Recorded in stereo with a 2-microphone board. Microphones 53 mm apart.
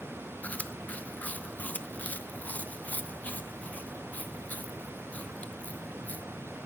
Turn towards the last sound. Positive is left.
turn(degrees=30)  # may be behind; listen again after turning